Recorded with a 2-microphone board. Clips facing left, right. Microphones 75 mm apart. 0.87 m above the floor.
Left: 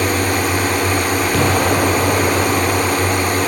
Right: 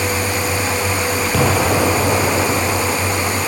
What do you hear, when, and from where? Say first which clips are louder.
0.0 s a drone: left 3 dB; 55° left (ahead or behind)
1.3 s an explosion: right 1 dB; centre (ahead or behind)